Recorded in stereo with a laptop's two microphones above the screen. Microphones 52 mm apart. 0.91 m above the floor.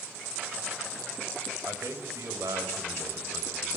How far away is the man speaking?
About 4 m.